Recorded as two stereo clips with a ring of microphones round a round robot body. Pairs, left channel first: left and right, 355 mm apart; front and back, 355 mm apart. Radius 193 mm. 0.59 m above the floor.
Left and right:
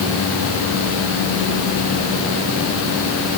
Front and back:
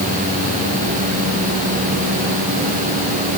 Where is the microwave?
No microwave in this recording.